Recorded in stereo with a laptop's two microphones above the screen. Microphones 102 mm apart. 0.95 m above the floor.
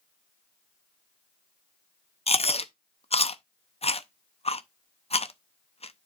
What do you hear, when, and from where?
2.3 s chewing: 85° left, 0.6 m